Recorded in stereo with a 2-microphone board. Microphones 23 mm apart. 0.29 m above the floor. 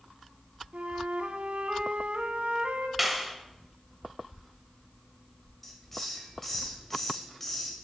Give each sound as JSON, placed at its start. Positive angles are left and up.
{"t": 0.7, "sound": "a flute", "side_deg": -70, "distance_m": 0.7}
{"t": 3.0, "sound": "a clap", "side_deg": -5, "distance_m": 1.0}
{"t": 5.6, "sound": "a hiss", "side_deg": 10, "distance_m": 1.7}